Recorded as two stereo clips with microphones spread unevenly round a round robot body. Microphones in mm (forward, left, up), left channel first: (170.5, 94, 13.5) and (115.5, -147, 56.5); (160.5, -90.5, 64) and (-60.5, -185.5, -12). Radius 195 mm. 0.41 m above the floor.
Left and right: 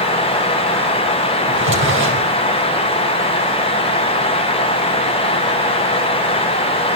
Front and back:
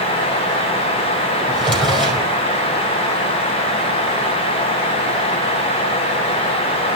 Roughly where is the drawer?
Ahead right.